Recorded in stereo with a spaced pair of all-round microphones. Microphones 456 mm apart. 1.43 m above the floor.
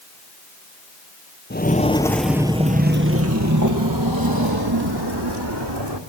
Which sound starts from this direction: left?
Footsteps, at 1.5 s.